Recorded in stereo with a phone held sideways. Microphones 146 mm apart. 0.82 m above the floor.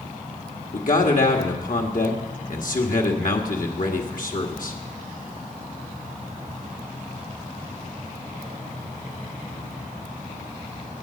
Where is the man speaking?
65° left (ahead or behind), 1.5 m.